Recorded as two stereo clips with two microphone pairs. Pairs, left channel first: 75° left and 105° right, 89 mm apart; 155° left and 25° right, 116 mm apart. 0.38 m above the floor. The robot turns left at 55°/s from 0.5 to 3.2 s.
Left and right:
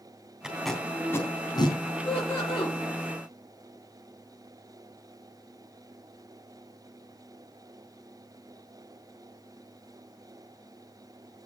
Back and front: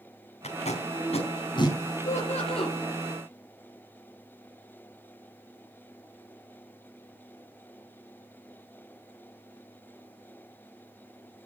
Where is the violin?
No violin in this recording.